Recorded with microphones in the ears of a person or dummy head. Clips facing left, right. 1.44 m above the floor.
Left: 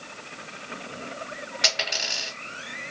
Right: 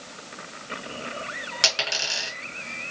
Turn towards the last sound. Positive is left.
turn(degrees=-50)  # may be behind; listen again after turning